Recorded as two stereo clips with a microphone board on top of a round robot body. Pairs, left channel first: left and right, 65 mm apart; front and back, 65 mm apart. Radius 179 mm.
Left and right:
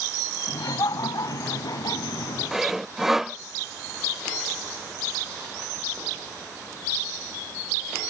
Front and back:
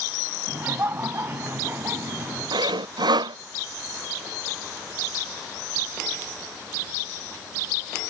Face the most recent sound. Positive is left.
turn(degrees=-175)